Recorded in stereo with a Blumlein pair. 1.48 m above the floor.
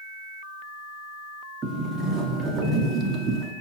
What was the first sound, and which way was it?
A sliding door, 20° right.